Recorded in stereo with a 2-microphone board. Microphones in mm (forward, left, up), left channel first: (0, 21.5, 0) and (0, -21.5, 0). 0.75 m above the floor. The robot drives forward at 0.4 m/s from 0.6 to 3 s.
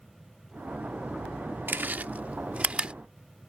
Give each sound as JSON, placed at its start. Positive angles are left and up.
{"t": 1.7, "sound": "chewing", "side_deg": -50}